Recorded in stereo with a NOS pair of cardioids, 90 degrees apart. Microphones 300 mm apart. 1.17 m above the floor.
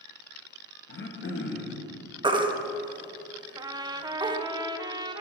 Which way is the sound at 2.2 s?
15° right.